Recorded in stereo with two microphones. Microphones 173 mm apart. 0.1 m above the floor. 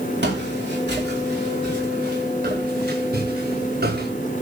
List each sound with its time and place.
0.2 s footsteps: 75° right (ahead or behind), 6.5 m; by 4.1 s 60° right (ahead or behind), 9 m